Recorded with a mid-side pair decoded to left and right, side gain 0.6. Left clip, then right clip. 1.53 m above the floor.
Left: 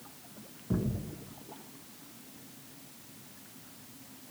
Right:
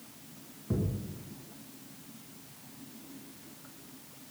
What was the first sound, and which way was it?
A thud, 10° right.